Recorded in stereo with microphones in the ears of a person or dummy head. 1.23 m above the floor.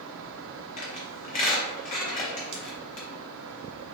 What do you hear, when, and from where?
0.8 s a squeak: 40° left (ahead or behind), 0.8 m
2.5 s scissors: 25° right (ahead or behind), 0.7 m